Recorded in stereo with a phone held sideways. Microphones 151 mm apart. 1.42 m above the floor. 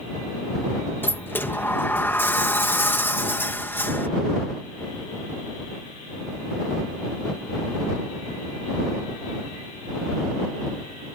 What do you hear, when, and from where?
1.0 s a sliding door: 15° left (ahead or behind)